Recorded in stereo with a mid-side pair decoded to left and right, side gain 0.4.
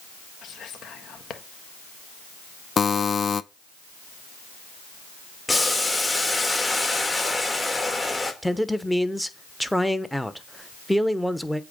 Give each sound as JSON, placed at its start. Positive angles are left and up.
{"t": 0.4, "sound": "whispering", "azimuth_deg": 65, "distance_m": 1.4}
{"t": 2.8, "sound": "a buzzer", "azimuth_deg": 45, "distance_m": 0.5}
{"t": 5.5, "sound": "boiling", "azimuth_deg": 20, "distance_m": 2.0}
{"t": 8.4, "sound": "a man speaking", "azimuth_deg": 0, "distance_m": 1.0}